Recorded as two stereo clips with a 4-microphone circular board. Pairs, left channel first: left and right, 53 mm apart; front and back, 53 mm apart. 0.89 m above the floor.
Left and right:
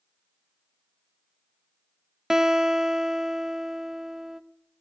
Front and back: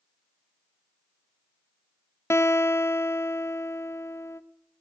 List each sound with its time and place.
2.3 s a guitar: 10° right, 0.8 m